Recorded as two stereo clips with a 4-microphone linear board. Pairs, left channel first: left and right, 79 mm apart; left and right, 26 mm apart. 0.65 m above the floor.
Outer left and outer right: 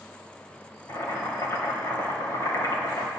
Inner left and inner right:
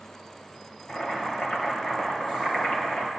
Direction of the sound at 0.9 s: 45° left (ahead or behind).